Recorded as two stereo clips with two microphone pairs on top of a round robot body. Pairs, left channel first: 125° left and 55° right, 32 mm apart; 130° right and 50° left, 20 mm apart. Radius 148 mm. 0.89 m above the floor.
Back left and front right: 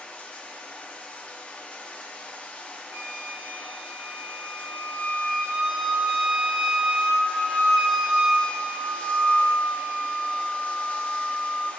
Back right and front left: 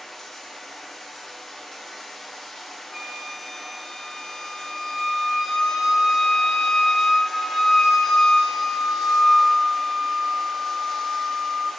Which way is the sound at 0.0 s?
160° left.